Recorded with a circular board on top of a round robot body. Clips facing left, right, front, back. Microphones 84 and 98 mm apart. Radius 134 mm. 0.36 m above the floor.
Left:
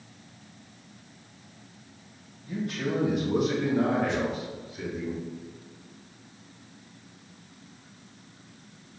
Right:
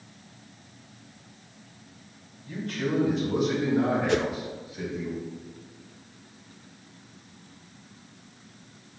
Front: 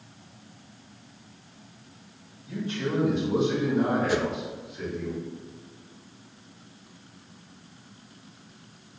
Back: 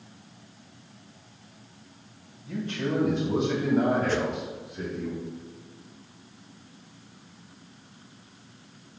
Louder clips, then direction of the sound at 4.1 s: Right 4 dB, front 1 dB; 80° right.